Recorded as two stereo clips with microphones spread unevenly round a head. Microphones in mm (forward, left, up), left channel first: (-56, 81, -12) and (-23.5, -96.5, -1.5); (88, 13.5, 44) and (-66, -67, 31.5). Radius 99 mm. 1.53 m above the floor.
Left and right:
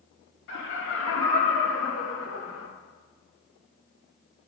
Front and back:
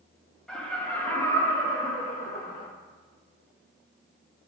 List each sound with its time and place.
0.5 s laughter: 115° left, 1.8 m; by 2.7 s 75° left, 1.3 m